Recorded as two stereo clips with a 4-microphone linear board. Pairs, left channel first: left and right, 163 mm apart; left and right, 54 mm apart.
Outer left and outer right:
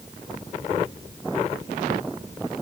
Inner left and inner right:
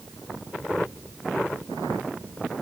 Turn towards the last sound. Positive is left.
No sound to turn to.